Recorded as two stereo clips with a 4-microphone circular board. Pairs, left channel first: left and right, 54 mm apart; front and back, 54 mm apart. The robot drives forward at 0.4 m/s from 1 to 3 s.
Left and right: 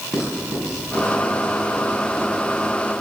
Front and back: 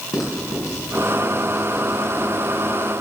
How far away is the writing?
About 5 m.